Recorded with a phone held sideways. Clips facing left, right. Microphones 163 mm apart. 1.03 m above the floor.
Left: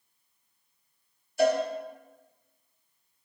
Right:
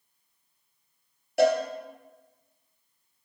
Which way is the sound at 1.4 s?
75° right (ahead or behind).